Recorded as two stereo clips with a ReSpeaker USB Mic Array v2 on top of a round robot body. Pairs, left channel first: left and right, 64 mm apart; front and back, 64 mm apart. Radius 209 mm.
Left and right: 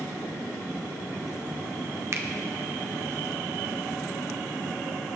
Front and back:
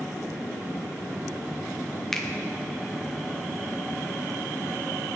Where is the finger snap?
80° right, 1.4 m.